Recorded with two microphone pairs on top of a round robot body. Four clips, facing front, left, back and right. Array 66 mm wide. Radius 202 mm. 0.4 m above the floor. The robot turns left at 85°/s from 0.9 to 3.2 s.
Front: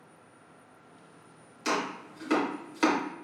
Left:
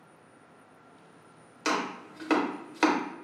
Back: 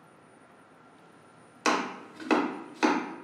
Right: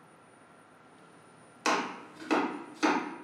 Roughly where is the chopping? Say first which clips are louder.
Even, back 3 dB; behind.